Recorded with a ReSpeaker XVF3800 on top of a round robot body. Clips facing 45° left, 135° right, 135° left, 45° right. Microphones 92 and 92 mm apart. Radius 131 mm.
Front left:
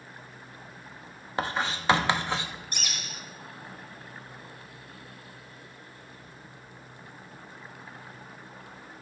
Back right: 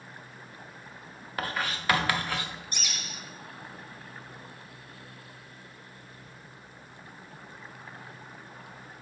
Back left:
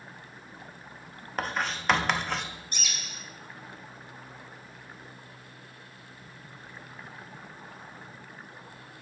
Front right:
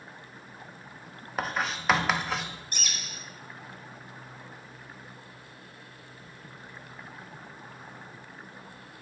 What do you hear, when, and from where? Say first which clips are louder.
1.4 s writing: front left 3 dB, even; 40° left, 1.2 m
2.7 s a bird: front left 1 dB, front right 1 dB; straight ahead, 1.3 m